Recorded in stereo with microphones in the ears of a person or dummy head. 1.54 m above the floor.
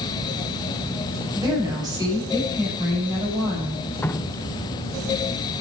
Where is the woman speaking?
25° right (ahead or behind), 9 m.